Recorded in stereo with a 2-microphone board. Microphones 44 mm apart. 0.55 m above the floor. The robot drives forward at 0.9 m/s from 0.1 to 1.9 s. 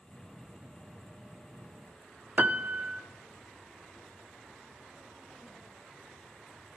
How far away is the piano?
About 0.5 m.